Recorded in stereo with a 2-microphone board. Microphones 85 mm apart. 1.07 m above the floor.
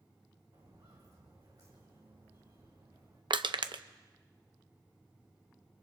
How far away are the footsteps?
About 4 m.